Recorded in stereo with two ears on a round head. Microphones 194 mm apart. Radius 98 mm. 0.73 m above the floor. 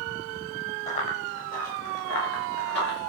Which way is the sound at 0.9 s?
30° left (ahead or behind).